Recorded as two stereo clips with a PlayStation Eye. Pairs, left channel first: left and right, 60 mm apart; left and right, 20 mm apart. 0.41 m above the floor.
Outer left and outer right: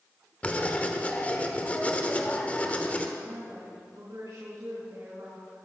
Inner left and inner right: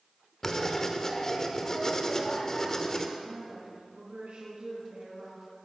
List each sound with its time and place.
0.4 s writing: 25° left (ahead or behind), 1.2 m
3.2 s a woman speaking: 70° right (ahead or behind), 3.5 m